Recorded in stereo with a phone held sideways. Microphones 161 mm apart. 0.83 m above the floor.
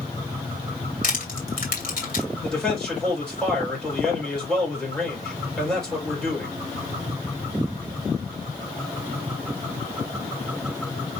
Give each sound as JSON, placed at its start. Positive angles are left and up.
{"t": 1.0, "sound": "crushing", "side_deg": 60, "distance_m": 2.5}
{"t": 2.4, "sound": "a man speaking", "side_deg": 5, "distance_m": 4.0}